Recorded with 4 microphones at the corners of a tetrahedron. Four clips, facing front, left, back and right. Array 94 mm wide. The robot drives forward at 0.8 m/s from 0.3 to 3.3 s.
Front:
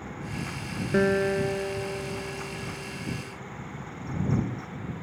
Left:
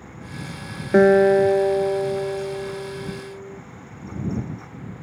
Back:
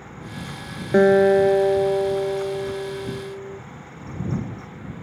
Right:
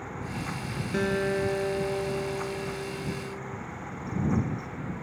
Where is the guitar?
120° left; by 3.6 s 160° left.